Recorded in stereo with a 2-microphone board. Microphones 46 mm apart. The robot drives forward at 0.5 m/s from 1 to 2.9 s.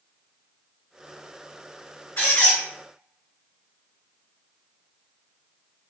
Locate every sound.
2.2 s a squeak: 55° left (ahead or behind), 1.4 m; by 2.6 s 50° left (ahead or behind), 1.5 m